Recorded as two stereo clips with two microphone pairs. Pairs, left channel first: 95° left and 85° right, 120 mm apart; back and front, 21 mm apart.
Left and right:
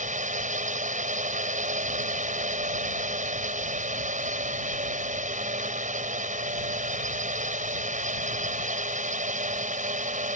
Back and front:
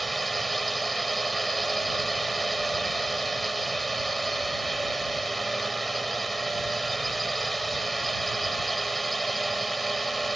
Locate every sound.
0.0 s a drone: 95° right